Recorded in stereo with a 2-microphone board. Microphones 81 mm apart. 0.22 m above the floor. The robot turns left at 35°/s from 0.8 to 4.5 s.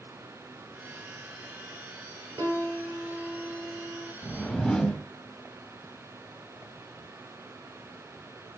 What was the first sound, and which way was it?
A piano, 85° right.